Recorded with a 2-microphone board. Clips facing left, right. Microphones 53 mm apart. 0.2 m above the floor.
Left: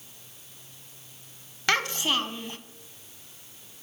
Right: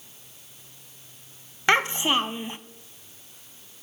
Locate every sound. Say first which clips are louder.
1.7 s a child speaking: right 4 dB; 20° right (ahead or behind), 0.8 m